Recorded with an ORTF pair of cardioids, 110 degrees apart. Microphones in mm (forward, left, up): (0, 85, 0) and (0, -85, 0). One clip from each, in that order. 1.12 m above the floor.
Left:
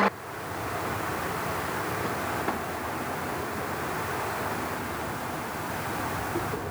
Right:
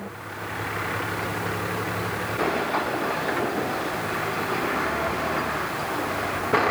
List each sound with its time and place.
Only background noise.